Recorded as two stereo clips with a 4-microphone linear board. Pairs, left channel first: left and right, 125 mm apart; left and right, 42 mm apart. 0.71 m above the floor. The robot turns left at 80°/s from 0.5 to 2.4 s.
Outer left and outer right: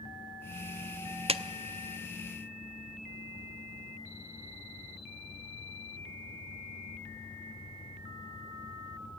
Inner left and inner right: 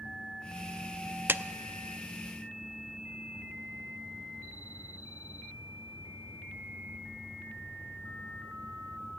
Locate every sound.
1.3 s a clap: 45° right (ahead or behind), 0.5 m